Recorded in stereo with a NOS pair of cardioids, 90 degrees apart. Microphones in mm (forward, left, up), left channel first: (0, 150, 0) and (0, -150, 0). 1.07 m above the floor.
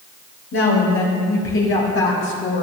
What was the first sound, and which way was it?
A woman speaking, 50° left.